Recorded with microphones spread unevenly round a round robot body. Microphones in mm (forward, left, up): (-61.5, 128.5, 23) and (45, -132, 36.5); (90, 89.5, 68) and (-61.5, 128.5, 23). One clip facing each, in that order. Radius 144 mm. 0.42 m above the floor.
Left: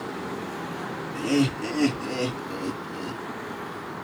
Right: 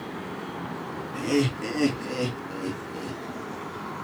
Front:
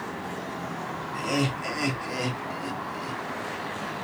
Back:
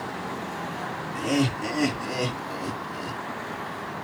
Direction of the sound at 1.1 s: 145° right.